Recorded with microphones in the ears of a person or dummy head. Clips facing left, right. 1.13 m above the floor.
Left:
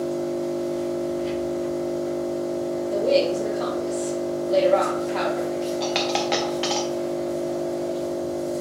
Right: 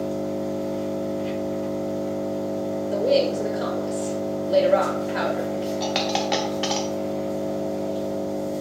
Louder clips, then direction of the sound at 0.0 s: Left 1 dB; 20° left (ahead or behind).